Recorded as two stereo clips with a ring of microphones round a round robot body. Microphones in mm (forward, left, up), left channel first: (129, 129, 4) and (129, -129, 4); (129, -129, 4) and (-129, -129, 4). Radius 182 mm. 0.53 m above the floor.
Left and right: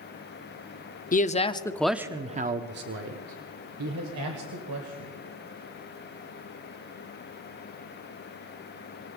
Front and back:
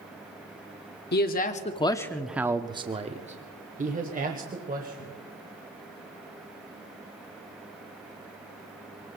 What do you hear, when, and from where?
1.1 s a man speaking: 40° left, 0.9 m; by 5.1 s 125° right, 2.5 m